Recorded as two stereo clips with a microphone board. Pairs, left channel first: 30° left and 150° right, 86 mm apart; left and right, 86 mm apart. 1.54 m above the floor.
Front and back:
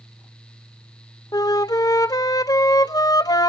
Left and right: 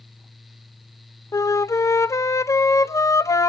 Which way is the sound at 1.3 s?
50° left.